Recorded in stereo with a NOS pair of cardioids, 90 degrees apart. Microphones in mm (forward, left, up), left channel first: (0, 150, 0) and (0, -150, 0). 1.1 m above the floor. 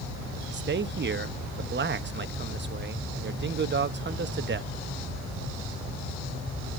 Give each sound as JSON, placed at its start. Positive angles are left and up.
{"t": 0.4, "sound": "a man speaking", "azimuth_deg": -35, "distance_m": 1.2}